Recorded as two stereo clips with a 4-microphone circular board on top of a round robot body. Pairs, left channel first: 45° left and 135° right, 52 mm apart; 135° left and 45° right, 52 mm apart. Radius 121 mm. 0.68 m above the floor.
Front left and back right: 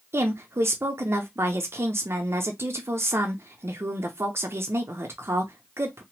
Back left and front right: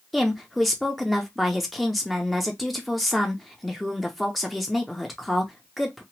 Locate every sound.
0.1 s a woman speaking: 135° right, 0.7 m